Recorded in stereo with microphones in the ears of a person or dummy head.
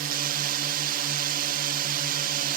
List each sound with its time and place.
0.0 s a drone: 45° right (ahead or behind)